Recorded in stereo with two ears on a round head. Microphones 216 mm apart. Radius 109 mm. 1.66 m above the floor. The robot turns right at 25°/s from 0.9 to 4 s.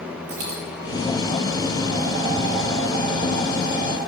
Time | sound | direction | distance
0.3 | a dropped coin | 65° right (ahead or behind) | 6 m